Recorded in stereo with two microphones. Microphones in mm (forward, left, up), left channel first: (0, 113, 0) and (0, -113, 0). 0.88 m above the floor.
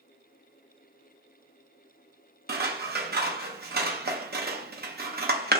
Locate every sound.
2.5 s scissors: 45° right (ahead or behind), 0.7 m